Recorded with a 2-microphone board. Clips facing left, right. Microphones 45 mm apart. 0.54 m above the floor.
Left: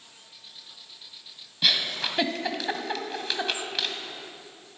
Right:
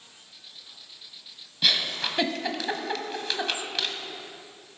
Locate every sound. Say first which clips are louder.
1.6 s a giggle: even; 5° left (ahead or behind), 1.2 m